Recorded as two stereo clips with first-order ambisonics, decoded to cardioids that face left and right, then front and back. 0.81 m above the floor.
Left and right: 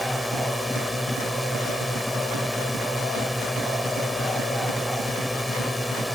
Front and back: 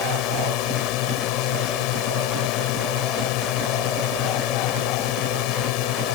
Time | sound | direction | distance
0.0 | a drone | 5° left | ?